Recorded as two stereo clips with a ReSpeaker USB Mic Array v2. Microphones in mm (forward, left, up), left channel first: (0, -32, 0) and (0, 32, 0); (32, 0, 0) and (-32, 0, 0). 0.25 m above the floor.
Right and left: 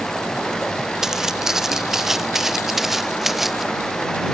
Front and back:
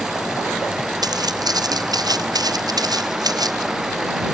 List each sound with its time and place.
1.0 s footsteps: 175° left